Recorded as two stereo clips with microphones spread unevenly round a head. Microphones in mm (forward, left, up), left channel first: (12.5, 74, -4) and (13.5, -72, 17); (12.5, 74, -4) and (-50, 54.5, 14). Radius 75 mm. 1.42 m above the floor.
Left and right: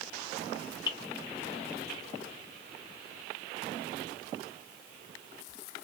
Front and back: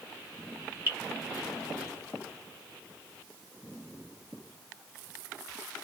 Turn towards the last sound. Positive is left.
turn(degrees=155)